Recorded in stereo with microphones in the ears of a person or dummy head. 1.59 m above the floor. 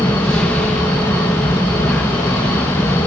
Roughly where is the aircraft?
Centre.